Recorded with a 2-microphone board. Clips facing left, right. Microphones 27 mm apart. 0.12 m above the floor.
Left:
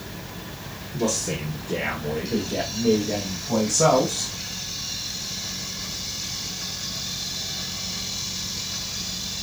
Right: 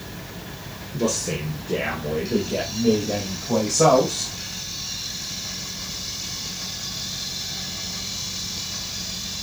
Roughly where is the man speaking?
Centre.